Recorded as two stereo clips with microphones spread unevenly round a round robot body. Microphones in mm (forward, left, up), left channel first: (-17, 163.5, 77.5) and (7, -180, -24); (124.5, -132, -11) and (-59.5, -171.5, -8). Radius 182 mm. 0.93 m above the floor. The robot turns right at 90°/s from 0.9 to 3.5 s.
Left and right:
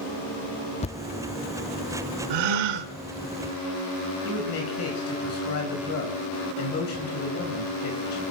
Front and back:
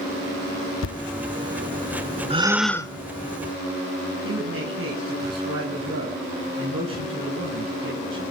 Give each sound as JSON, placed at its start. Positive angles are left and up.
{"t": 0.8, "sound": "a thud", "azimuth_deg": 25, "distance_m": 0.7}
{"t": 2.3, "sound": "a gasp", "azimuth_deg": -110, "distance_m": 1.9}
{"t": 4.2, "sound": "a man speaking", "azimuth_deg": 150, "distance_m": 7.0}